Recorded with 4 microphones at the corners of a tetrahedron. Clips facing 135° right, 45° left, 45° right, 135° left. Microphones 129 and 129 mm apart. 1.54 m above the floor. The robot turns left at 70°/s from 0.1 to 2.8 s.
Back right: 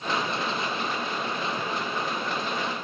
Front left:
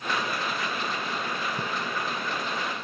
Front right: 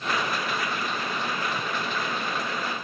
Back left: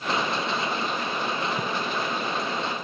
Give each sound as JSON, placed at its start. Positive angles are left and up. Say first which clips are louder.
{"t": 1.6, "sound": "a splash", "louder": "back right 1 dB, back left 3 dB", "azimuth_deg": 105}